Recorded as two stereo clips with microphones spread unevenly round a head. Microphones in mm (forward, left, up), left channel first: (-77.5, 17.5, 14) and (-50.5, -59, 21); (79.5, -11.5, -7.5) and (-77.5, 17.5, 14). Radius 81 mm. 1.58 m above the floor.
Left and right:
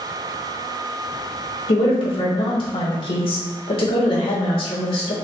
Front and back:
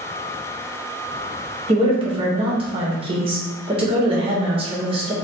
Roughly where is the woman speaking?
Behind left.